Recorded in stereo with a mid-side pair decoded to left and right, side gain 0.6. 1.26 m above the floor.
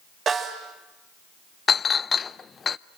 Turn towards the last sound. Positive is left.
turn(degrees=30)